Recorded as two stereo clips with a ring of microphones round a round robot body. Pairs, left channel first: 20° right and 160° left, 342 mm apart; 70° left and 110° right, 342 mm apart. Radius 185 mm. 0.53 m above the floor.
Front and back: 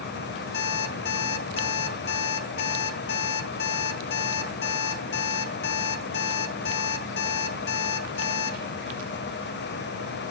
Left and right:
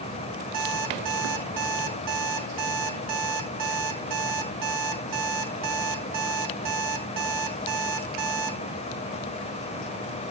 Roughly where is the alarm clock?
Right.